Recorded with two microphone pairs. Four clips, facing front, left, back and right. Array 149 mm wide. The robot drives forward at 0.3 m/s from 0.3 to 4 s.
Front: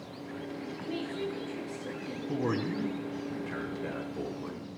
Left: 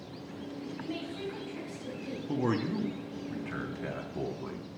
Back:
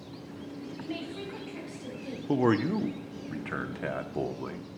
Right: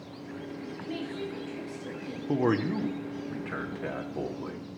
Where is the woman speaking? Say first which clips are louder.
Right 3 dB, front 3 dB; 140° left, 7.5 m.